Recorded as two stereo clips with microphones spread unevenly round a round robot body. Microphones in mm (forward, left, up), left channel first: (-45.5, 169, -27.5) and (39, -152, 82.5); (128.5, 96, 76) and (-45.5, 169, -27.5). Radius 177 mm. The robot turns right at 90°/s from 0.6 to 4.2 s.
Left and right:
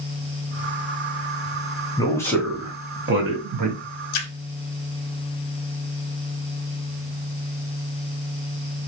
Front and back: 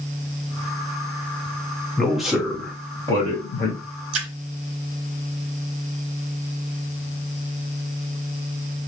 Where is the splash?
150° left, 0.7 m; by 4.3 s 155° left, 0.7 m.